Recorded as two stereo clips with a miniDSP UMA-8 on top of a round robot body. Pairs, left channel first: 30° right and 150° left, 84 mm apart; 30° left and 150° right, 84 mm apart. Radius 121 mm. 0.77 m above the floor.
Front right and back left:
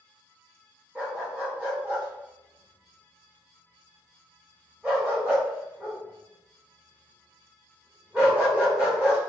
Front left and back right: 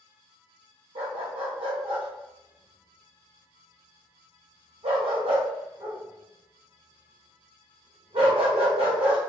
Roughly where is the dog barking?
Behind right.